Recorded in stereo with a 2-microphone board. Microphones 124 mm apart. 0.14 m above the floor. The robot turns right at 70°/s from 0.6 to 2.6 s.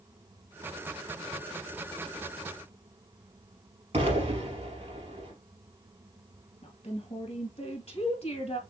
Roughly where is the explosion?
Right.